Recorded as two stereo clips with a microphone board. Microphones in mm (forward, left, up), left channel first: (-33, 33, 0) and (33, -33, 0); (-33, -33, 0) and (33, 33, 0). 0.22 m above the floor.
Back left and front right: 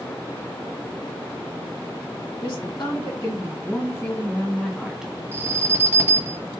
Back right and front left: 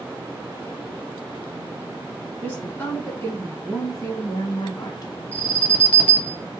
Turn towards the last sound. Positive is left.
turn(degrees=-80)